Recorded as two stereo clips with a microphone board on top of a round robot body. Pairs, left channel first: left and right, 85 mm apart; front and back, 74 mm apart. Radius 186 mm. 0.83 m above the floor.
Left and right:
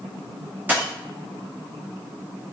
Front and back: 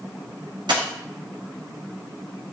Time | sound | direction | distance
0.7 | a dropped coin | 160° right | 0.9 m